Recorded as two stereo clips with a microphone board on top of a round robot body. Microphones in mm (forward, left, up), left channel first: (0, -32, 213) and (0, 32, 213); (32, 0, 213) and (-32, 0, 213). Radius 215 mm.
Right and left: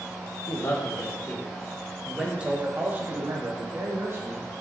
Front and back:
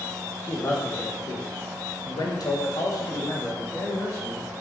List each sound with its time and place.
0.4 s a man speaking: 50° right, 1.8 m; by 4.4 s 45° left, 3.5 m